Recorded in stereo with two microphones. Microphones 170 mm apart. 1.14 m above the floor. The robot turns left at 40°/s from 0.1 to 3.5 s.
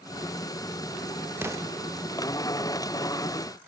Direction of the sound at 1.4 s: 15° right (ahead or behind).